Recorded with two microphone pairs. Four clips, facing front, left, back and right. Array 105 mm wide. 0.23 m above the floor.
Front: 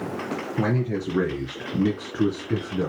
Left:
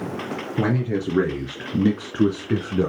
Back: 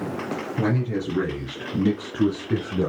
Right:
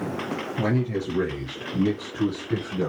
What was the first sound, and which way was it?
A man speaking, 65° left.